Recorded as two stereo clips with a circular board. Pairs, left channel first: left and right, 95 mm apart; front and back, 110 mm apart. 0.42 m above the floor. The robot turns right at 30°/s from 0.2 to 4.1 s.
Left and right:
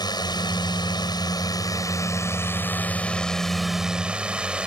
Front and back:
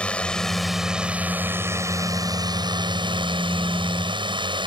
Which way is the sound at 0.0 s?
75° left.